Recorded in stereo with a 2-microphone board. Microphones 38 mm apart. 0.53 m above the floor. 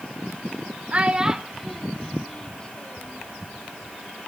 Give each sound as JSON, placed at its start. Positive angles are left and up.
{"t": 0.9, "sound": "a child speaking", "side_deg": -35, "distance_m": 0.9}